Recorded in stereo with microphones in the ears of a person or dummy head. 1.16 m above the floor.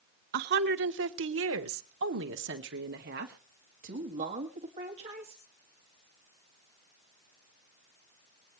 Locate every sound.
0.3 s a woman speaking: 55° right (ahead or behind), 1.3 m; by 5.4 s 30° right (ahead or behind), 2.5 m